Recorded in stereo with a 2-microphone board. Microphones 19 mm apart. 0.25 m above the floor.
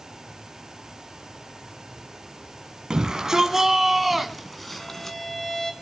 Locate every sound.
2.9 s a shout: 45° right (ahead or behind), 1.9 m; by 5.2 s 20° left (ahead or behind), 2 m
4.8 s a violin: 25° left (ahead or behind), 2.0 m